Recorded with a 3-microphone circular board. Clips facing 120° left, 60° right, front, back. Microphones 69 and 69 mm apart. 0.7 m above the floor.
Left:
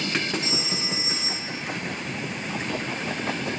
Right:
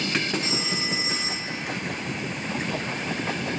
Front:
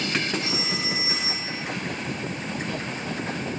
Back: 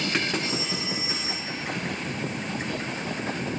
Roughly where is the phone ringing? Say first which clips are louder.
Right 1 dB, front 1 dB; ahead.